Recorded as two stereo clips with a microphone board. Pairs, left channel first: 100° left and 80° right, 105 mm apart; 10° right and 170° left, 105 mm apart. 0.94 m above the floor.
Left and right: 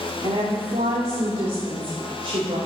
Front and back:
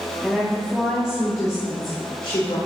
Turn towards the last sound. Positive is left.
turn(degrees=-45)